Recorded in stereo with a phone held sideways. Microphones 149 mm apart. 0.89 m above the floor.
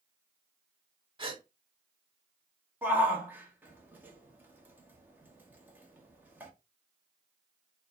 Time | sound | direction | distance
1.2 | a gasp | 35° right (ahead or behind) | 1.4 m
2.8 | a shout | 10° right (ahead or behind) | 1.1 m